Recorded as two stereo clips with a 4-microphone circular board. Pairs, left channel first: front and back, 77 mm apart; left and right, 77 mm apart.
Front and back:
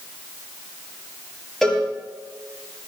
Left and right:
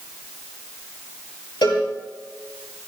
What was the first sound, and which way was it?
A cowbell, 85° left.